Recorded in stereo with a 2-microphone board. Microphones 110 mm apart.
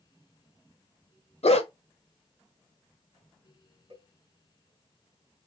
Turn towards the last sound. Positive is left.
turn(degrees=-50)  # may be behind; listen again after turning